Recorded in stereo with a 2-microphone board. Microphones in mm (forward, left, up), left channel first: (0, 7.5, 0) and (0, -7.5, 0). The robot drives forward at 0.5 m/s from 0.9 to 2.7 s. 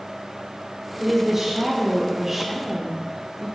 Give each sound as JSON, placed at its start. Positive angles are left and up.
{"t": 1.0, "sound": "a woman speaking", "side_deg": -15, "distance_m": 1.3}